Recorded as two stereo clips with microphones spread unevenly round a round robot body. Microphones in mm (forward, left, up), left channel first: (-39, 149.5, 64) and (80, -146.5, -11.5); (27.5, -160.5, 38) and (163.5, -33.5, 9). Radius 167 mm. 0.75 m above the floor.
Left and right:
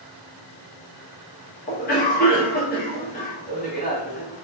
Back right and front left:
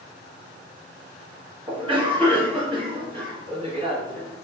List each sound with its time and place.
1.7 s a cough: 50° left, 1.1 m